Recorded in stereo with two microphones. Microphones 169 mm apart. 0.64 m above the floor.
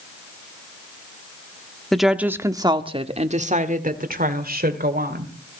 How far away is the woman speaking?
About 1.2 m.